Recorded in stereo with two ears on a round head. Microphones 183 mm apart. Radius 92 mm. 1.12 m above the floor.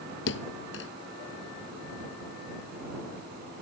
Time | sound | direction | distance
0.3 | a thud | 65° left (ahead or behind) | ?